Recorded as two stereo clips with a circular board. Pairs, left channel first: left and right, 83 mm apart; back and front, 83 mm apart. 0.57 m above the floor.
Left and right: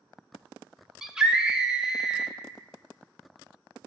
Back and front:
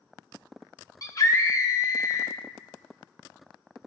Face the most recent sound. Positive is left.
turn(degrees=-170)